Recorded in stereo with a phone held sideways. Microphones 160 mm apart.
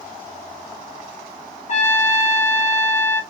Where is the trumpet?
50° left (ahead or behind), 1.0 m.